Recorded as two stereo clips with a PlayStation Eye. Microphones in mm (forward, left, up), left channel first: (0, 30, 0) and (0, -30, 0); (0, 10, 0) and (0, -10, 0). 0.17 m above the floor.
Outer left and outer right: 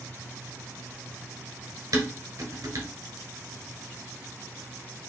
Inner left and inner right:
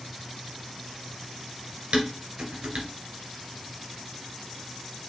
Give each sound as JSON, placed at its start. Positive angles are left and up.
{"t": 1.9, "sound": "dishes clattering", "side_deg": -60, "distance_m": 1.5}